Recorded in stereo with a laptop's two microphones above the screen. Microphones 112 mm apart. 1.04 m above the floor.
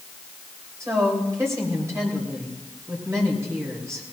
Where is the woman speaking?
25° right (ahead or behind), 3 m.